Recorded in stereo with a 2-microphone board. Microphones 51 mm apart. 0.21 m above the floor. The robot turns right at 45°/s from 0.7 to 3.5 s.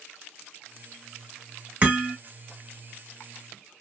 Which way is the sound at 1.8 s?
30° right (ahead or behind).